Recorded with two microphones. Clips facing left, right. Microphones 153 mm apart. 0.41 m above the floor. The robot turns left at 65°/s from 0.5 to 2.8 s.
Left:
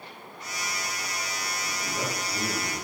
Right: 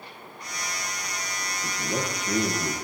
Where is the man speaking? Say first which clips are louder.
Right 5 dB; 45° right, 7.5 m; by 2.8 s 120° right, 7.5 m.